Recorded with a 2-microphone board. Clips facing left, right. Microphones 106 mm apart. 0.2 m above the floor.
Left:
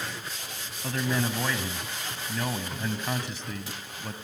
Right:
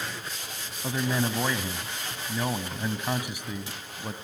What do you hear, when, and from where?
0.8 s a man speaking: 15° right (ahead or behind), 1.1 m